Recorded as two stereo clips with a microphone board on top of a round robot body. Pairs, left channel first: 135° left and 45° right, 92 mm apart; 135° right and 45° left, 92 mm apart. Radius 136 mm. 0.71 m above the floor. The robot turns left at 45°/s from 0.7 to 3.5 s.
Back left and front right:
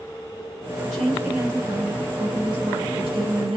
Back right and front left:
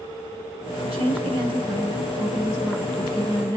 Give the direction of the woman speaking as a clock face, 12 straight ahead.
10 o'clock.